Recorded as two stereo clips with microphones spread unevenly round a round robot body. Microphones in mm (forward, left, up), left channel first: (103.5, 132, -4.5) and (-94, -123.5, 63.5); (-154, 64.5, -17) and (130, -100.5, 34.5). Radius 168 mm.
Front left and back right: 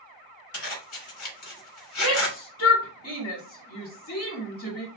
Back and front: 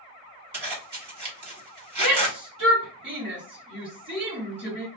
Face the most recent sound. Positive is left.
turn(degrees=40)